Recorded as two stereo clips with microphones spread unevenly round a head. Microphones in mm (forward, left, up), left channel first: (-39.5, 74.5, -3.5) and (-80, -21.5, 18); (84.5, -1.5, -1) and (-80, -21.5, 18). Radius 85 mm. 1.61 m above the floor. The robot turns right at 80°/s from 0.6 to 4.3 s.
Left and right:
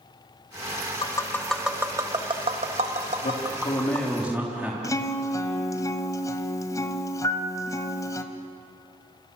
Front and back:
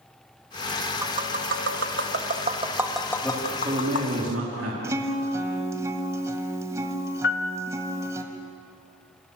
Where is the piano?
10° right, 1.1 m.